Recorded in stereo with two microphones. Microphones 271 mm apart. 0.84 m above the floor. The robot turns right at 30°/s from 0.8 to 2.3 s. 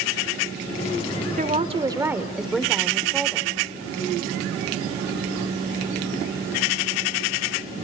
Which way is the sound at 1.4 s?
30° right (ahead or behind).